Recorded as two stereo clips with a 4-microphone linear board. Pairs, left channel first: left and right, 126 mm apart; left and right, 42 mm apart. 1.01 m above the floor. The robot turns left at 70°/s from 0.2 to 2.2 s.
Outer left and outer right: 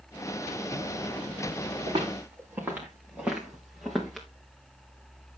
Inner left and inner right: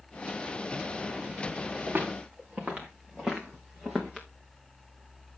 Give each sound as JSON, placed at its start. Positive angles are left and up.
{"t": 1.9, "sound": "footsteps", "side_deg": -50, "distance_m": 3.5}